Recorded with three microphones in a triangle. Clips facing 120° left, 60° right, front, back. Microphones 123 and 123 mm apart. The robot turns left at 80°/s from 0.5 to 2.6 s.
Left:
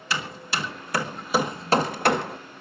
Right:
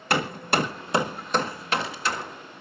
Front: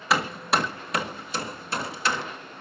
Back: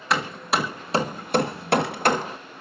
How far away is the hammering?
About 1.5 m.